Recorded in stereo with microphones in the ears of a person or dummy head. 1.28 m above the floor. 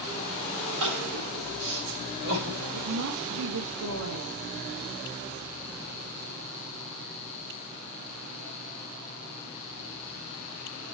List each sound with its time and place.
0.8 s crying: 70° right (ahead or behind), 4 m
2.7 s a woman speaking: 80° right, 1.4 m